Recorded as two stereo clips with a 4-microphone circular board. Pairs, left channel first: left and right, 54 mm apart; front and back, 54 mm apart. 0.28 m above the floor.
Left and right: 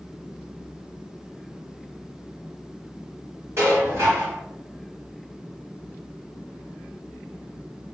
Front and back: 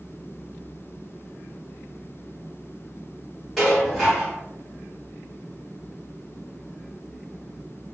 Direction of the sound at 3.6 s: 85° right.